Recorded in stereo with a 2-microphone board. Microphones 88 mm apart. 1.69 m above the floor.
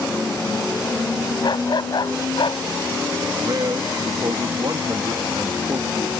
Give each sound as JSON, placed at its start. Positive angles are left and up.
{"t": 1.4, "sound": "a dog barking", "side_deg": 60}
{"t": 3.4, "sound": "a man speaking", "side_deg": -55}